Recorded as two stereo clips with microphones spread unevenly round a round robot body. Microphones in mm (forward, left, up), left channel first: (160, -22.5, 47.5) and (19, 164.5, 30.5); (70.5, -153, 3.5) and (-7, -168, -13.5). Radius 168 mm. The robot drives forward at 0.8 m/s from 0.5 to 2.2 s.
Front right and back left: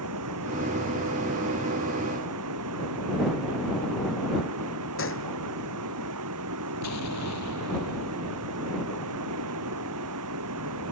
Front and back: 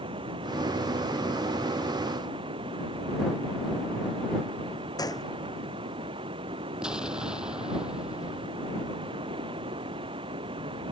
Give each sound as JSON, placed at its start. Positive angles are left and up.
{"t": 0.0, "sound": "running water", "azimuth_deg": 165}
{"t": 5.0, "sound": "a gunshot", "azimuth_deg": -25}
{"t": 6.8, "sound": "an explosion", "azimuth_deg": -90}